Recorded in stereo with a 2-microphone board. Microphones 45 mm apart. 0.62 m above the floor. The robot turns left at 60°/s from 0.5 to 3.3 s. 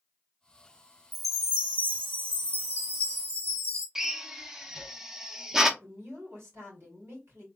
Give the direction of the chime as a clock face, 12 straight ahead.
12 o'clock.